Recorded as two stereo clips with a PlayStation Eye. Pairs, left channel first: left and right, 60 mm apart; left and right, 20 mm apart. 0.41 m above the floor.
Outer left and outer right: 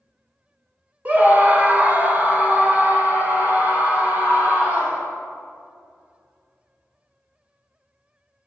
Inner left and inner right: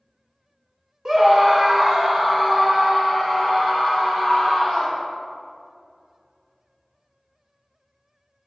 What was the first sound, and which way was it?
A scream, 25° right (ahead or behind).